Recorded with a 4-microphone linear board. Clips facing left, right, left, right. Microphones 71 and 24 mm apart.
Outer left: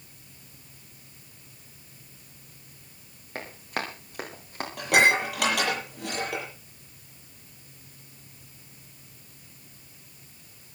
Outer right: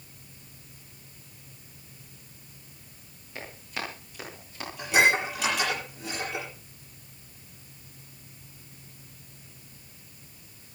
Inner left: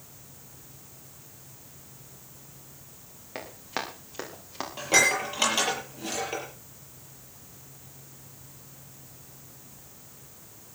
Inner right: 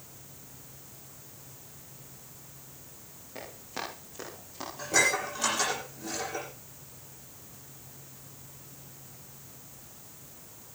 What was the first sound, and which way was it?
Running footsteps, 60° left (ahead or behind).